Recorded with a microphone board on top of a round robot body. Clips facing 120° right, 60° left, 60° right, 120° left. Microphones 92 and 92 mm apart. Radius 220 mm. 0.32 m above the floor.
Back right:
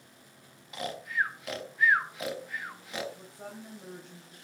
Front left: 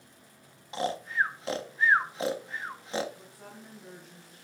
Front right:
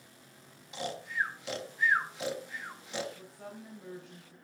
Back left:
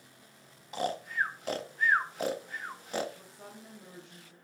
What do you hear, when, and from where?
0.7 s snoring: 110° left, 1.7 m
3.1 s a woman speaking: straight behind, 5 m